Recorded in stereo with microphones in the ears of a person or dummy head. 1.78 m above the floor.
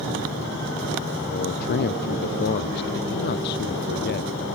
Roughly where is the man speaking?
Left.